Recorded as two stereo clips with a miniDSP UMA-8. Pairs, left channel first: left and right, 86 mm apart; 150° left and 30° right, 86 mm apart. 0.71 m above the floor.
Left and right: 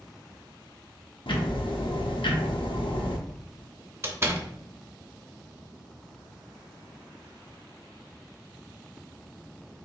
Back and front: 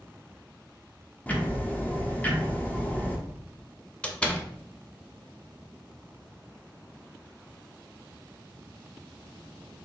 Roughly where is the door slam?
Behind right.